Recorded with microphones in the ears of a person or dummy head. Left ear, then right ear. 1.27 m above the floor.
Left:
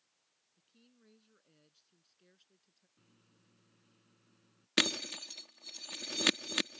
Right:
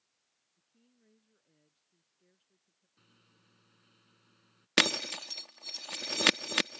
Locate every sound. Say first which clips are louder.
0.6 s a woman speaking: left 4 dB; 35° left (ahead or behind); by 2.9 s 40° left (ahead or behind)
3.0 s a microwave: right 6 dB; 30° right (ahead or behind)
4.8 s breaking glass: right 4 dB; 35° right (ahead or behind)